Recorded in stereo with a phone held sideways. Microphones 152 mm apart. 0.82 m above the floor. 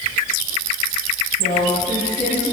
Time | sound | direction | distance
1.4 | a woman speaking | 70° left (ahead or behind) | 5 m